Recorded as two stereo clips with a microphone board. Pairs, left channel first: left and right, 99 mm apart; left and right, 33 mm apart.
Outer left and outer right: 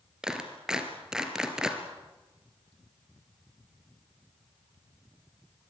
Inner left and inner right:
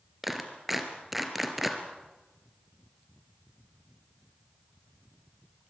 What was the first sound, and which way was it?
A clap, 5° right (ahead or behind).